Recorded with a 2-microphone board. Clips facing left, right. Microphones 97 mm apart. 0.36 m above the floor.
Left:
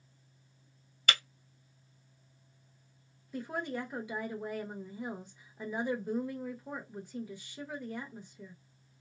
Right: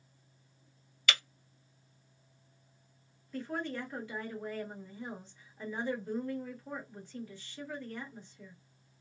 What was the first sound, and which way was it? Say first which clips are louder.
Breaking glass: left 1 dB; 40° left (ahead or behind).